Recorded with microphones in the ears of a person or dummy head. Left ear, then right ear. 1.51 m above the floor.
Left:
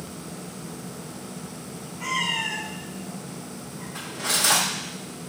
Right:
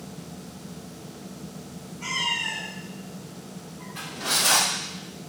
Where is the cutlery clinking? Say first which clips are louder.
Even; 65° left (ahead or behind), 1.5 m.